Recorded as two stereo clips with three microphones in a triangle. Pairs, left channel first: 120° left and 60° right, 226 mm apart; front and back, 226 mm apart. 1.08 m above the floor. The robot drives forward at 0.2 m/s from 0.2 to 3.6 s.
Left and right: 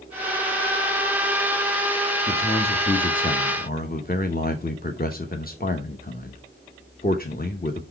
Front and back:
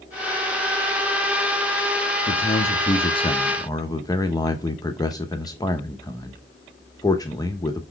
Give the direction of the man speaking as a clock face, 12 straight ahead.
10 o'clock.